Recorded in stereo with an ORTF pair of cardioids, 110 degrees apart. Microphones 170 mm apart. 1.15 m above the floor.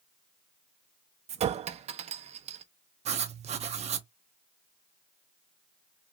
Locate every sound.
1.3 s a clink: 40° right, 0.5 m
3.0 s writing: 40° right, 0.6 m